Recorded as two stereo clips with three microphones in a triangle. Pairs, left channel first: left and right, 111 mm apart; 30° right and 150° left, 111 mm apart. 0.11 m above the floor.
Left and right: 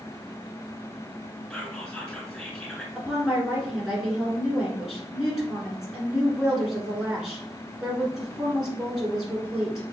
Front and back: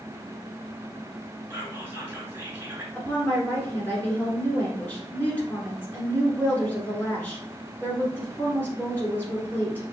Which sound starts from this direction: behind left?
Whispering, at 1.5 s.